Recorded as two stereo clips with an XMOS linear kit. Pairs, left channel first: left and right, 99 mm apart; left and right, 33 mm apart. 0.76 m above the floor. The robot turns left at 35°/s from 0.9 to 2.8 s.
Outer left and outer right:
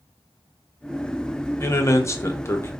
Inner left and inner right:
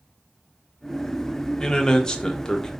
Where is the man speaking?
25° left (ahead or behind), 0.5 m.